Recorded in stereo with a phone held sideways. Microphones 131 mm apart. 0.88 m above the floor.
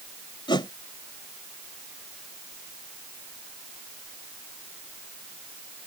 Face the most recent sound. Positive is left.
turn(degrees=35)  # may be behind; listen again after turning